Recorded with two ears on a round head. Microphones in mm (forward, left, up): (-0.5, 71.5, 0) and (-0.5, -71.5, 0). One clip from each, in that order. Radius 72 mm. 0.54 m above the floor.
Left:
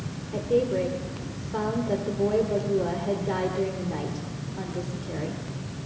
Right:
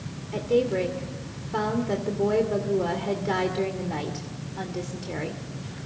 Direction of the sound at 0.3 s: 45° right (ahead or behind).